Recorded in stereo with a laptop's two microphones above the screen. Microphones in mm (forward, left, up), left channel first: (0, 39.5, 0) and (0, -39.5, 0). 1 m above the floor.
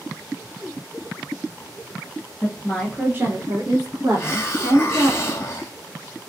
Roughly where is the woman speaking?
Left.